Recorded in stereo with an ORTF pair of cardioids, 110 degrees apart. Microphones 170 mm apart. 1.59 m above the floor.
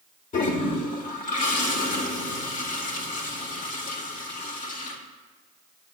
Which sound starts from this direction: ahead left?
A toilet flushing, at 0.3 s.